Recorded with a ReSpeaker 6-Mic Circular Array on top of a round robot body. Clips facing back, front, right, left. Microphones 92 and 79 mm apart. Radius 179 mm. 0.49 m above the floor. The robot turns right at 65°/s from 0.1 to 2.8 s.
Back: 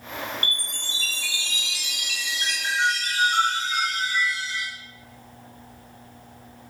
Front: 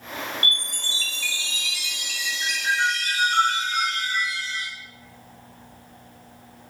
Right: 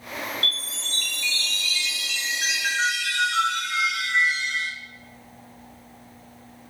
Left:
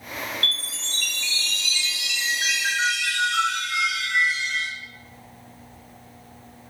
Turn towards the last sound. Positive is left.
turn(degrees=-150)